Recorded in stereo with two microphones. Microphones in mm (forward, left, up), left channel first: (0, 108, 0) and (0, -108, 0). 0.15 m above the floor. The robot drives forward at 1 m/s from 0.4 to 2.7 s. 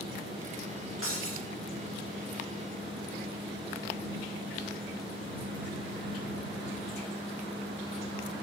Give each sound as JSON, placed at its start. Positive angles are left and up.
{"t": 1.0, "sound": "breaking glass", "side_deg": 75, "distance_m": 8.5}